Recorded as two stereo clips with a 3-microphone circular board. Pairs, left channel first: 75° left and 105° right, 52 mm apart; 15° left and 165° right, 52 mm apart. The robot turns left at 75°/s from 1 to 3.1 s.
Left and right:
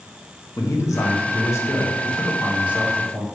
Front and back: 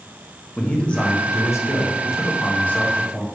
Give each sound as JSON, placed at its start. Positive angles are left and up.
{"t": 0.6, "sound": "a man speaking", "azimuth_deg": 85, "distance_m": 1.4}